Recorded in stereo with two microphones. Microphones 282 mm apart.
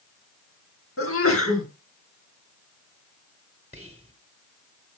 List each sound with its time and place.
1.0 s a sneeze: 50° left (ahead or behind), 3.5 m
3.7 s whispering: 25° right (ahead or behind), 1.2 m